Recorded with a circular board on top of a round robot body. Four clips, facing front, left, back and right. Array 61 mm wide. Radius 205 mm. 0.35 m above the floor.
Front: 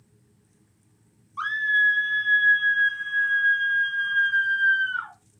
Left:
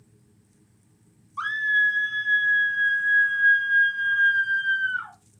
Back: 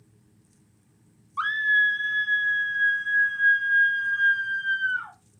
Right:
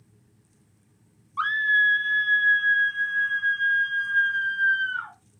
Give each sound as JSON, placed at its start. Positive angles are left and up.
{"t": 1.4, "sound": "a scream", "azimuth_deg": -130, "distance_m": 1.2}